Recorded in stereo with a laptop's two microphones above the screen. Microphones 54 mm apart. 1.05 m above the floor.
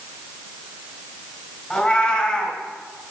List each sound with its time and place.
1.7 s a cat meowing: 15° left (ahead or behind), 3 m